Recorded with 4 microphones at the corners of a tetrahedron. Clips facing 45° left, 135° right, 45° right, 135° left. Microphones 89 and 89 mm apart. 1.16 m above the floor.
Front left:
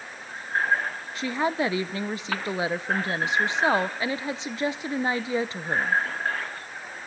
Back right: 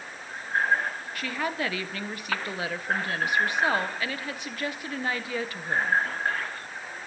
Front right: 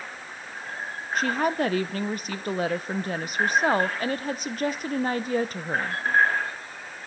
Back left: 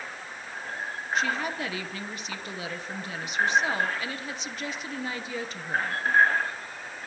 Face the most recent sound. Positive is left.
turn(degrees=-20)